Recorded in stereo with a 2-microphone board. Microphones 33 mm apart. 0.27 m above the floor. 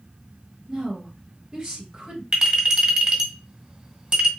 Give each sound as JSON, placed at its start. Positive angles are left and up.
{"t": 0.7, "sound": "a woman speaking", "side_deg": -20, "distance_m": 1.2}
{"t": 2.3, "sound": "a clink", "side_deg": -25, "distance_m": 1.5}